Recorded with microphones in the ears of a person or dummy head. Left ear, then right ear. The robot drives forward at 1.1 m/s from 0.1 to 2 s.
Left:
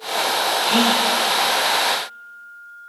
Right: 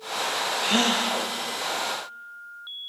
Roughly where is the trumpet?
I don't hear a trumpet.